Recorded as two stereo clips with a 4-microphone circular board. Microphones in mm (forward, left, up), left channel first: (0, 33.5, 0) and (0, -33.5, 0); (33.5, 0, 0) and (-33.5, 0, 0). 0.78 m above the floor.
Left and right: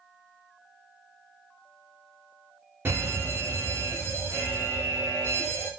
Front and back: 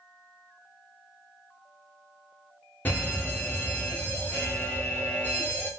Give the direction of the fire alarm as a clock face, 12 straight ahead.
2 o'clock.